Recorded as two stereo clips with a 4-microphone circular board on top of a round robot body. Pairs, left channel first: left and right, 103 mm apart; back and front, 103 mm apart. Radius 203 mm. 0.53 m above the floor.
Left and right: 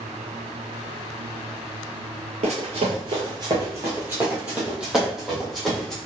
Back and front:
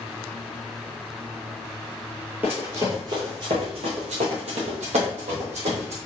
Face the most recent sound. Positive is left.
turn(degrees=5)